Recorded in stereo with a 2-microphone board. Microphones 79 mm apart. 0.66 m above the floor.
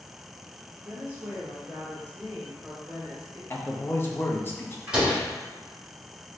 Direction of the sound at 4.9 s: 10° right (ahead or behind).